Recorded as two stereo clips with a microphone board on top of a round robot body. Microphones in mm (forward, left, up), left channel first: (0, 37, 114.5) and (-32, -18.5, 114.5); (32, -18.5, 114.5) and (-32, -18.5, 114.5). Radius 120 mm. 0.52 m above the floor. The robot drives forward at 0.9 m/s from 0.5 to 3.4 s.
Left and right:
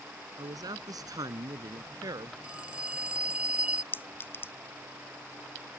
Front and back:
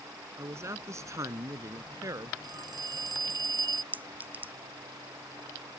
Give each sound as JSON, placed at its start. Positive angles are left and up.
{"t": 0.4, "sound": "a man speaking", "azimuth_deg": -135}
{"t": 2.4, "sound": "a phone ringing", "azimuth_deg": 165}
{"t": 3.9, "sound": "a clink", "azimuth_deg": 115}